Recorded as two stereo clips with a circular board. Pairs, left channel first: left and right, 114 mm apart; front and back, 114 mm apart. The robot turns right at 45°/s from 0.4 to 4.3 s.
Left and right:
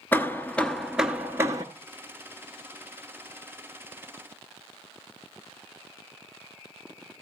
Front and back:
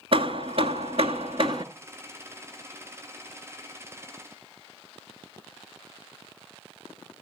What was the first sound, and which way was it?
Hammering, 160° left.